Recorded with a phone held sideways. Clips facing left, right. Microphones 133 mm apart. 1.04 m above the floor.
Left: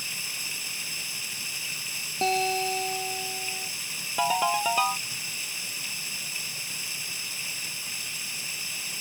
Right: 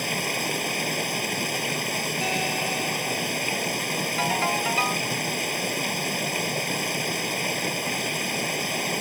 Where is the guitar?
25° left (ahead or behind).